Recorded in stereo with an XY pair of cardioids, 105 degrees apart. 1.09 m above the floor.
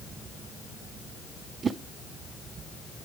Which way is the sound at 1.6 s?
45° right.